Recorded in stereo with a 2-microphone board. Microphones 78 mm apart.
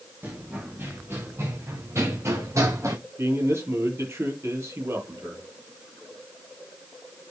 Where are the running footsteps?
25° right (ahead or behind), 6 m; by 3.0 s 40° right (ahead or behind), 6 m.